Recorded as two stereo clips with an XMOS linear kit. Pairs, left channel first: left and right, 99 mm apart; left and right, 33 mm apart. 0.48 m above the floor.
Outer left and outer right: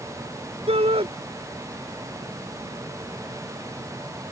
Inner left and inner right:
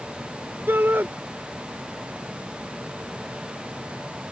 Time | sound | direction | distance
0.7 | a shout | 80° right | ?